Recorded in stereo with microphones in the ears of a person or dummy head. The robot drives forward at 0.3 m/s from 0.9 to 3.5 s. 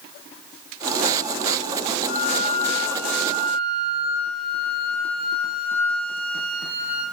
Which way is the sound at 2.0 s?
35° left (ahead or behind).